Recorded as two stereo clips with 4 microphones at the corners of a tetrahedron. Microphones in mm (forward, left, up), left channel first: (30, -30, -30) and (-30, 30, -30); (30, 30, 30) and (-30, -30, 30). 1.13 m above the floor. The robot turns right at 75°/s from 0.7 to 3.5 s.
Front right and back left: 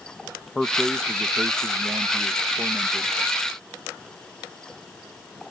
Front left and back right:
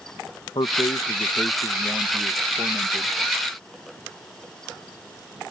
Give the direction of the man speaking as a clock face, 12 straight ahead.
11 o'clock.